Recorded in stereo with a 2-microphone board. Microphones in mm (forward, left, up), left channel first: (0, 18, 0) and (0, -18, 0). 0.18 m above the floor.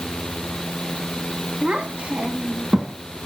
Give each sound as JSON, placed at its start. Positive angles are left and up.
{"t": 1.6, "sound": "a child speaking", "side_deg": -40, "distance_m": 1.2}